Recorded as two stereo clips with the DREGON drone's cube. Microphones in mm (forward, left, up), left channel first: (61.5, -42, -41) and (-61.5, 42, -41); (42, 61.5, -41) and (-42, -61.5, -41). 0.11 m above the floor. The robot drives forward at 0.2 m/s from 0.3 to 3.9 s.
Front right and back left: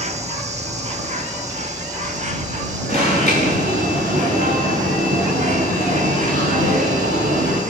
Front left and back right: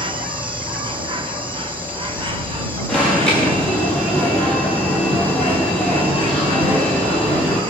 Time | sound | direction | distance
0.0 | an insect | straight behind | 1.3 m
2.9 | an alarm | 140° left | 5 m